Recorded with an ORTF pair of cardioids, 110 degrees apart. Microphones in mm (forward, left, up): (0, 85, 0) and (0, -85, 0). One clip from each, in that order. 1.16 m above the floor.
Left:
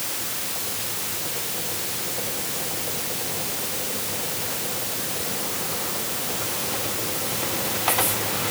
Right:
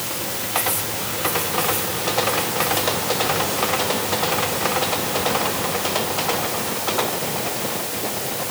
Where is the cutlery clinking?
No cutlery clinking in this recording.